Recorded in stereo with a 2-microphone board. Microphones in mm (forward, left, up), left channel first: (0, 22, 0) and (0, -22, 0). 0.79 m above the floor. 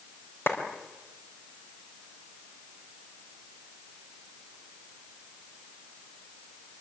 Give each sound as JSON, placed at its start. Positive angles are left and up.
{"t": 0.5, "sound": "a clap", "side_deg": 60, "distance_m": 4.0}